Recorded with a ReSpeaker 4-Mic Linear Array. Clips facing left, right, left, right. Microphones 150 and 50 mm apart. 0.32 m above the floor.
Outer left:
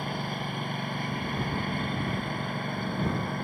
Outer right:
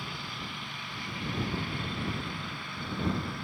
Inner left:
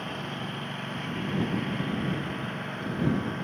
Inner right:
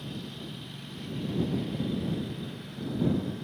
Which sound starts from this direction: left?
A lawn mower, at 0.0 s.